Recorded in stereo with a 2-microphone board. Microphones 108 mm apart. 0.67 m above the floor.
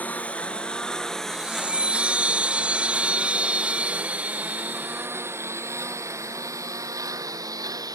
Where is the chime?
10° right (ahead or behind).